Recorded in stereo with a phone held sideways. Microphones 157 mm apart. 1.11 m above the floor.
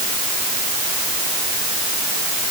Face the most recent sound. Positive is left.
No sound to turn to.